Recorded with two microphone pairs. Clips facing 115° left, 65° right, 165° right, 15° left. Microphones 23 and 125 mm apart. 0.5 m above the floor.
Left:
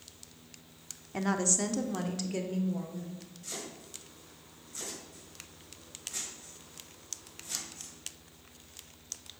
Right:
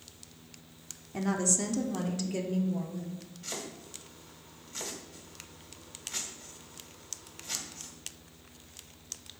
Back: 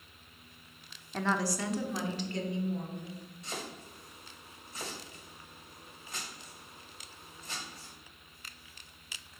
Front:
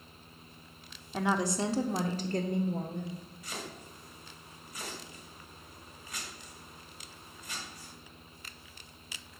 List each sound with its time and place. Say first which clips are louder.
1.1 s a woman speaking: even, front 2 dB; 90° left, 0.7 m; by 3.2 s 30° left, 1.4 m
3.4 s chopping: right 2 dB, back 3 dB; 105° right, 2.5 m